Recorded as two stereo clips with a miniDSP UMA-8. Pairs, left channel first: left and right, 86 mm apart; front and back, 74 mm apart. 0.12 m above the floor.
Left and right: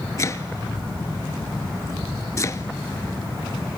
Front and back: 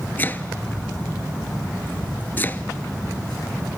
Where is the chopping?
50° left, 0.5 m.